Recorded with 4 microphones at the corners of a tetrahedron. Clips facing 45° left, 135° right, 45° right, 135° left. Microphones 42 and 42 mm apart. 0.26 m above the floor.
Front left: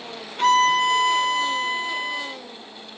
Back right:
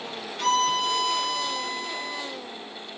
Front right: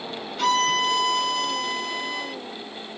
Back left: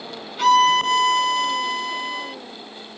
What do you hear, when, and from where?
0.4 s a violin: 50° left, 0.8 m